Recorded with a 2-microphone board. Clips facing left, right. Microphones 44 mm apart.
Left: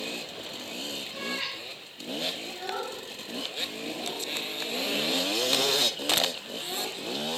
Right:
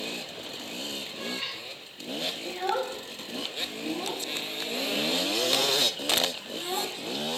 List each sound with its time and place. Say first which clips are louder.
1.1 s a cat meowing: left 3 dB; 75° left (ahead or behind), 9 m
2.5 s a child speaking: right 5 dB; 30° right (ahead or behind), 2.0 m